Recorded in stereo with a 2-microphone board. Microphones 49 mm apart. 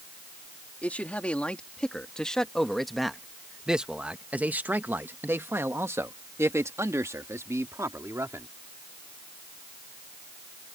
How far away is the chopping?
I don't hear chopping.